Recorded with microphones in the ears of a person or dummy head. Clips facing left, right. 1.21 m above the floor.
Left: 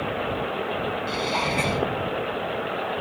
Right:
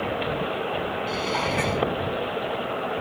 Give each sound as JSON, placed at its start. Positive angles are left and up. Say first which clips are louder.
{"t": 1.1, "sound": "dishes clattering", "louder": "even", "side_deg": -10}